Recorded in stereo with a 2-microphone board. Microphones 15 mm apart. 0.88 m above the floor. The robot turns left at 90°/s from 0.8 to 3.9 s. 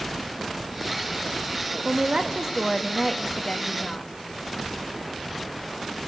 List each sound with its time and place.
1.9 s a woman speaking: 80° right, 1.3 m; by 4.1 s 95° left, 1.3 m